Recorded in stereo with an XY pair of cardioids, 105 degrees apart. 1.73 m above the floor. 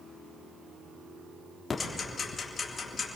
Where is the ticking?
35° left, 3.5 m.